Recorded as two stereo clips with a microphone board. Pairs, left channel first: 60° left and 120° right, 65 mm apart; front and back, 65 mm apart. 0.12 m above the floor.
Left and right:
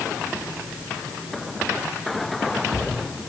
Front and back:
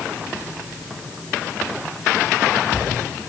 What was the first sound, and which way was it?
Only background noise.